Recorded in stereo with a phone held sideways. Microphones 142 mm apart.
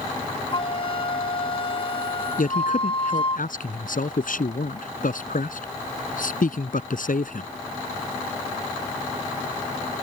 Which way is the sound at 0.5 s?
40° left (ahead or behind).